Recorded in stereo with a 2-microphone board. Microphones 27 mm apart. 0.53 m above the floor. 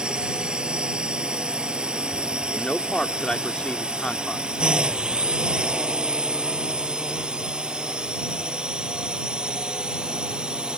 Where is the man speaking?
40° left (ahead or behind).